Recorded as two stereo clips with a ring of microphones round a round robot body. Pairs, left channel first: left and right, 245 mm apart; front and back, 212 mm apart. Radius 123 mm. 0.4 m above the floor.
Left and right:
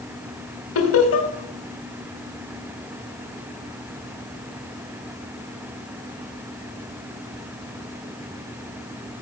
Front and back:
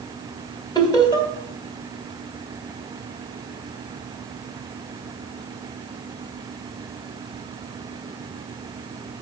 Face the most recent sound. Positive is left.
turn(degrees=70)